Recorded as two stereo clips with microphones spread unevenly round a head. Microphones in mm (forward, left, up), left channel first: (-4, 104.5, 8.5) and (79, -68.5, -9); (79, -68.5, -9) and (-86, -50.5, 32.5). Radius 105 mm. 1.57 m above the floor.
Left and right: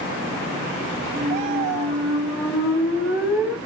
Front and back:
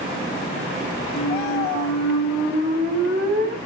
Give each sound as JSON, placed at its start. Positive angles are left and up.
{"t": 1.1, "sound": "a squeak", "azimuth_deg": -160, "distance_m": 3.5}